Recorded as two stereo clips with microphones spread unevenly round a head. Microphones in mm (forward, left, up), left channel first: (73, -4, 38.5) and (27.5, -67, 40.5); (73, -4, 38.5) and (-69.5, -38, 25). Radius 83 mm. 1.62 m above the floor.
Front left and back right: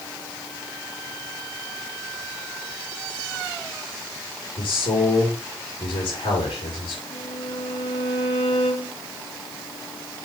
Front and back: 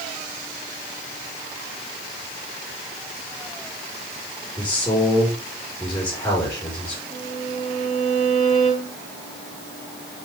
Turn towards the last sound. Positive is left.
turn(degrees=105)